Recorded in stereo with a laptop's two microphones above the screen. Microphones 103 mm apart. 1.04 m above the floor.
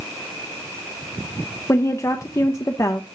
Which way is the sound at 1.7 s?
30° left (ahead or behind).